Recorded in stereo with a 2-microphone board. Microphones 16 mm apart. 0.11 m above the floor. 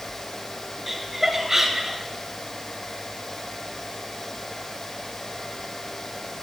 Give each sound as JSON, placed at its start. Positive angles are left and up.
{"t": 0.9, "sound": "laughter", "side_deg": -10, "distance_m": 1.9}